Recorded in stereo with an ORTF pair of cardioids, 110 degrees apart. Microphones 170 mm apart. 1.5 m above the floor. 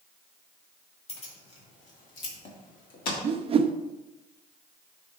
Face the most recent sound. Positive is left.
turn(degrees=-35)